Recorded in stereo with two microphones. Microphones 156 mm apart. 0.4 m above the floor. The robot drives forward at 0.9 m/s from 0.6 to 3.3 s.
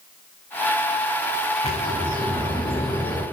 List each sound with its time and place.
1.6 s a bird: 45° left (ahead or behind), 6 m; by 3.2 s 35° left (ahead or behind), 7 m